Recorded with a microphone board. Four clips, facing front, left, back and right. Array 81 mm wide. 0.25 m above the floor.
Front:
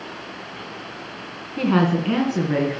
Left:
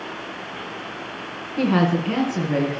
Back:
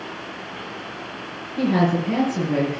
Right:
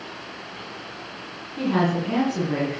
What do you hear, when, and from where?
1.6 s a woman speaking: 30° left, 2.5 m; by 2.8 s straight ahead, 3.5 m